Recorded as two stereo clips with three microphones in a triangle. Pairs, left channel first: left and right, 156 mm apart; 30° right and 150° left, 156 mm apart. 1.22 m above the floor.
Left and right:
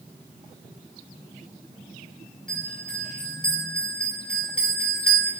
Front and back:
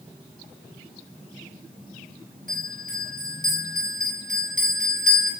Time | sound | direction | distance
2.5 | a bell | 175° left | 6.5 m